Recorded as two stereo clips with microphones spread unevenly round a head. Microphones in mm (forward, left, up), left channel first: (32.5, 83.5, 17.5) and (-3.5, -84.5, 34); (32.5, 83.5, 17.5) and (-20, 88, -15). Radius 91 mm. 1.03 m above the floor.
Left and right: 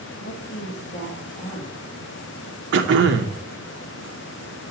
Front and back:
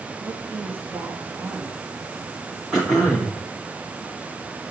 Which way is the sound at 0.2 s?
125° left.